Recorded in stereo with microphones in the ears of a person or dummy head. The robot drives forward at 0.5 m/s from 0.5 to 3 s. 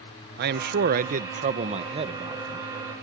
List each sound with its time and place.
0.4 s a man speaking: 55° right (ahead or behind); by 2.7 s 25° right (ahead or behind)